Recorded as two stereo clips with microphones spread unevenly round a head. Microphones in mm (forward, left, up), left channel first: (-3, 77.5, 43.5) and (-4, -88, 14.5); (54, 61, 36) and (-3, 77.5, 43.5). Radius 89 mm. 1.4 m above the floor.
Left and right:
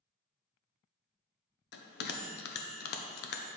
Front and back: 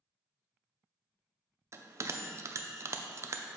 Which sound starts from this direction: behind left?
A bell, at 1.7 s.